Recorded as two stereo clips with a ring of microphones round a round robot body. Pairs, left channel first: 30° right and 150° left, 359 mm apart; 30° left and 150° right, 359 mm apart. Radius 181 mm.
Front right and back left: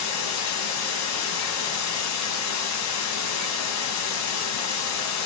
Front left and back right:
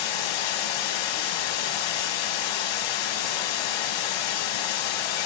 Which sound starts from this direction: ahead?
Running water, at 0.0 s.